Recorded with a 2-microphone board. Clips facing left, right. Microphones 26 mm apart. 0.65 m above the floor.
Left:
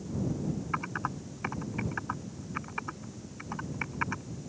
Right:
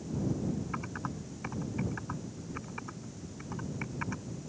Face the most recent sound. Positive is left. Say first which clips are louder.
# left 5 dB
turn(degrees=25)  # may be behind; listen again after turning